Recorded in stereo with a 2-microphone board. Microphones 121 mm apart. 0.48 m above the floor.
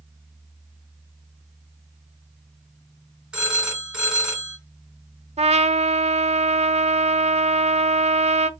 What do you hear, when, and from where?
3.3 s a phone ringing: 5° right (ahead or behind), 2.5 m
5.4 s a trumpet: 65° right (ahead or behind), 0.6 m